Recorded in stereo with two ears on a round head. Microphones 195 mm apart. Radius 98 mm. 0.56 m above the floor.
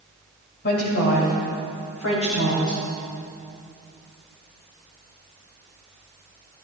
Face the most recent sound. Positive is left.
turn(degrees=70)  # may be behind; listen again after turning